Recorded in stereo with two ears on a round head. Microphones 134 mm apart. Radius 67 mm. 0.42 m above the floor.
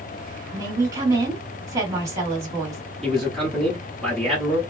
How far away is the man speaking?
About 1.4 m.